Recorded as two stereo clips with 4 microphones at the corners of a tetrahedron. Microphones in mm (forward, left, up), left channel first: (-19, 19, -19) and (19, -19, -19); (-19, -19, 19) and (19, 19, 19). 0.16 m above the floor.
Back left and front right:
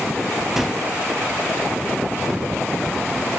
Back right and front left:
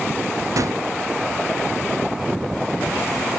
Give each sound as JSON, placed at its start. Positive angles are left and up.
{"t": 0.6, "sound": "a gunshot", "azimuth_deg": 40, "distance_m": 0.8}